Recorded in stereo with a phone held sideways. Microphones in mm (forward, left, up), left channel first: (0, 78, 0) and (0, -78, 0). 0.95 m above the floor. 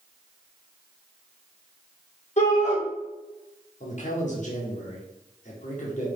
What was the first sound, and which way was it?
A shout, 50° left (ahead or behind).